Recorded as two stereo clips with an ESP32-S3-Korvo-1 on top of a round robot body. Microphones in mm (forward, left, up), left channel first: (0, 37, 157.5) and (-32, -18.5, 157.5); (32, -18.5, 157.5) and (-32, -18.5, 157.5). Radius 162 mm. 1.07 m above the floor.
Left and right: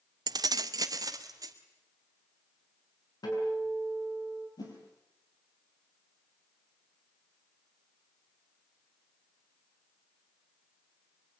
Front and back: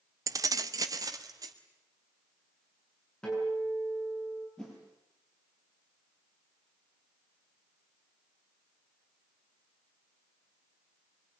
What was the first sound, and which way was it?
Keys jangling, 140° right.